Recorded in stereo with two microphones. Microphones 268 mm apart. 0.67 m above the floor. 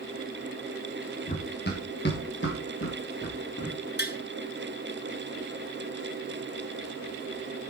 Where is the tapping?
40° left (ahead or behind), 1.0 m.